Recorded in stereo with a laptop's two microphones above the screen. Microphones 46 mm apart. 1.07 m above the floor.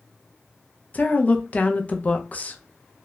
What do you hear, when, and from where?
0.9 s a woman speaking: 35° left (ahead or behind), 0.7 m